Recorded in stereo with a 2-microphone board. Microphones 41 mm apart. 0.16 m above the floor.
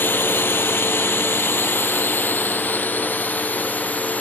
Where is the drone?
65° left (ahead or behind); by 4.2 s 40° left (ahead or behind).